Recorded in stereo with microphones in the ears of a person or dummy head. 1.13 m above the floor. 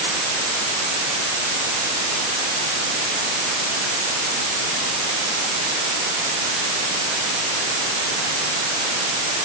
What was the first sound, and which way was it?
Only background noise.